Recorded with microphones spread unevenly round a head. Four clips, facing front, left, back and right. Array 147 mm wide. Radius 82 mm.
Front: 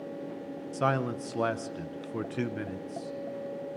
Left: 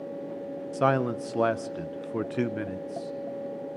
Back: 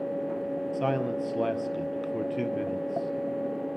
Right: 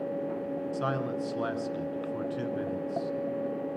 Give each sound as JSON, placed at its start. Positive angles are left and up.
{"t": 0.7, "sound": "a man speaking", "azimuth_deg": 100, "distance_m": 0.9}